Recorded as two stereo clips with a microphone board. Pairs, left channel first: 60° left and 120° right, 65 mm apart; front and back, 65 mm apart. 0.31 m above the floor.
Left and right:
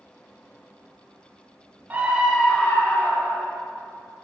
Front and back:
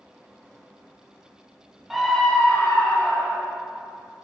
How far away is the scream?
About 1.0 m.